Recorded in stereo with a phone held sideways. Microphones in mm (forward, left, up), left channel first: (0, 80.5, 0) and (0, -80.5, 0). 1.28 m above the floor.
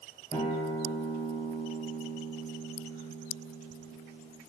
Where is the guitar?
35° left (ahead or behind), 1.7 m.